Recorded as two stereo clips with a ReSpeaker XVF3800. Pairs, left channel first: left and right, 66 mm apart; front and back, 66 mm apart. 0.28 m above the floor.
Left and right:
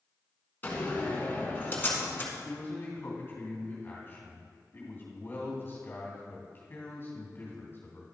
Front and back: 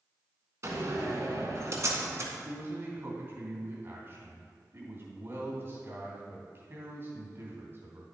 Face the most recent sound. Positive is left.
turn(degrees=140)